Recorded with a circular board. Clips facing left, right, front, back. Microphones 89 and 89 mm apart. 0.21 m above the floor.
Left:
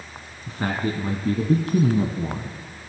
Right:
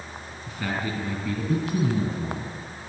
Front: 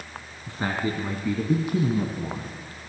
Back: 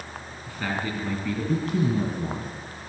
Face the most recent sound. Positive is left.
turn(degrees=100)